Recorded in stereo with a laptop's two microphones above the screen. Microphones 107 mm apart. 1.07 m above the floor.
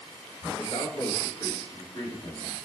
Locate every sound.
0.6 s a man speaking: 35° left (ahead or behind), 1.0 m; by 2.5 s 45° left (ahead or behind), 2.0 m